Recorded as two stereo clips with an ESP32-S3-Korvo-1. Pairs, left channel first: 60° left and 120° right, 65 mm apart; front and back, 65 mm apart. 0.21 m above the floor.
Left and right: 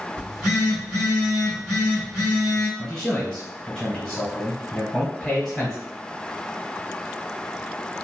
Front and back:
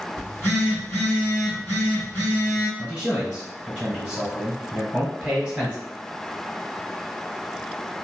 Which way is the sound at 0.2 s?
45° right.